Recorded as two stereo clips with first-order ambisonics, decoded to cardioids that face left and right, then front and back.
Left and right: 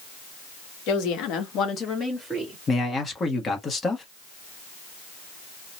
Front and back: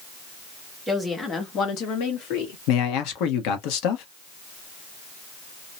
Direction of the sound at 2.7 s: 20° left.